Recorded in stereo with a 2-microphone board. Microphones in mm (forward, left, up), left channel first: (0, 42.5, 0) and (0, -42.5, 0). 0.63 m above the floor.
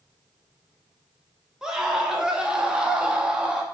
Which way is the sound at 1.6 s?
10° right (ahead or behind).